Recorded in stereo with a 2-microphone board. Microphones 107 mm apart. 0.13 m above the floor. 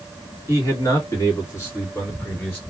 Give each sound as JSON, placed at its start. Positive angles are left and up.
{"t": 0.5, "sound": "a man speaking", "side_deg": 25, "distance_m": 1.9}